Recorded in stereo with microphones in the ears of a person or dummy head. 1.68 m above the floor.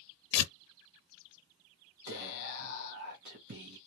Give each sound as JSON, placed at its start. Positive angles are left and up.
{"t": 0.3, "sound": "tearing paper", "side_deg": 80, "distance_m": 0.8}
{"t": 2.1, "sound": "whispering", "side_deg": -50, "distance_m": 0.9}